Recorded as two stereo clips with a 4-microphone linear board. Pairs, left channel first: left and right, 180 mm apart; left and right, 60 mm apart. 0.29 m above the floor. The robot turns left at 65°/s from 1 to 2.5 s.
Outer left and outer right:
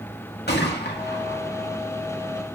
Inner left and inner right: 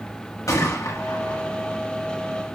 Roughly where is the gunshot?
Left.